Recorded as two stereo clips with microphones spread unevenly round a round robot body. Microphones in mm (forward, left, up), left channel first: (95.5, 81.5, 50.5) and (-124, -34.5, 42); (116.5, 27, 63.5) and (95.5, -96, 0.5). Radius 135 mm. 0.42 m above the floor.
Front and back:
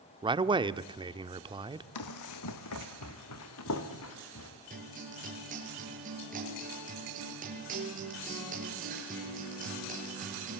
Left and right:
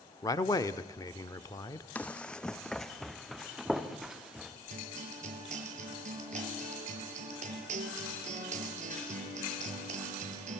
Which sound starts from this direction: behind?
A man speaking, at 0.2 s.